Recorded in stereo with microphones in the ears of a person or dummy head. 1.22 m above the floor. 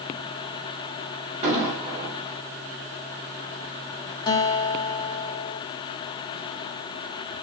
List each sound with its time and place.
1.4 s an explosion: 40° right (ahead or behind), 1.5 m
4.3 s a guitar: 25° left (ahead or behind), 0.6 m